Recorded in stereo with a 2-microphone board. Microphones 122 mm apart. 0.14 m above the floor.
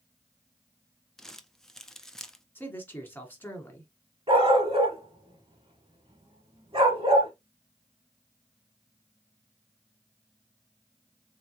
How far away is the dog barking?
About 1.3 m.